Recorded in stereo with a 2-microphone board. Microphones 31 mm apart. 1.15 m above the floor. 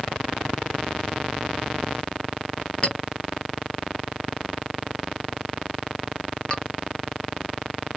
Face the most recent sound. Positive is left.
turn(degrees=30)  # may be behind; listen again after turning